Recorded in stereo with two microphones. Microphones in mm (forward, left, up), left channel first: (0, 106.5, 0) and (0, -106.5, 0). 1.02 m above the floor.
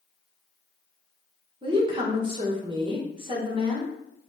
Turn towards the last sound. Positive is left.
turn(degrees=-20)  # may be behind; listen again after turning